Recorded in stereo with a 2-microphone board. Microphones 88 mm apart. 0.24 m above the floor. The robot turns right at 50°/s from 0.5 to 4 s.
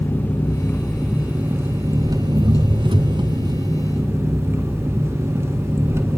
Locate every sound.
0.0 s an engine running: 155° left, 1.7 m; by 6.2 s 30° right, 1.7 m